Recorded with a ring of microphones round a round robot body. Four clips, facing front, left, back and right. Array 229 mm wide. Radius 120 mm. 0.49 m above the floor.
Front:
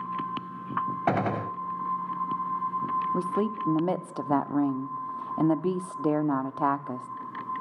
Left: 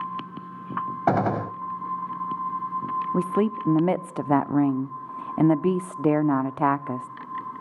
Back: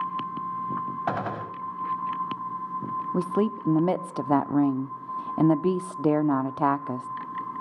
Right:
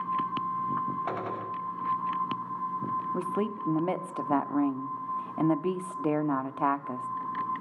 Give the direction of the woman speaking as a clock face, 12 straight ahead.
8 o'clock.